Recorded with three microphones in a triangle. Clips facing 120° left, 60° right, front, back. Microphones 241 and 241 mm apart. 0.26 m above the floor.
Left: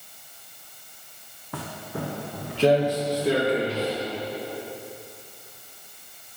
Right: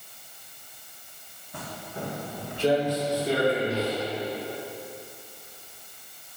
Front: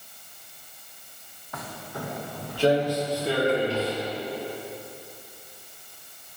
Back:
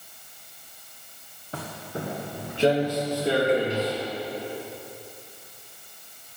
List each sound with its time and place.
1.5 s footsteps: 120° left, 1.1 m; by 4.0 s 105° left, 3 m